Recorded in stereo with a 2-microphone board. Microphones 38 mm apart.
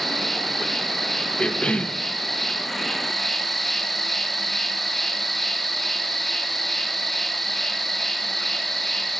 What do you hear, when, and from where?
0.0 s an insect: 5° left (ahead or behind), 1.1 m
1.4 s a cough: 30° left (ahead or behind), 0.8 m